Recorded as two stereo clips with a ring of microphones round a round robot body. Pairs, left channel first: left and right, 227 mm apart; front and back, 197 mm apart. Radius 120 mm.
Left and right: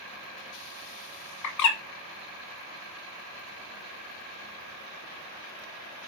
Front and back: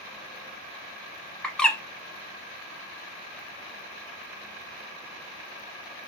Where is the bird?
85° left, 1.1 m.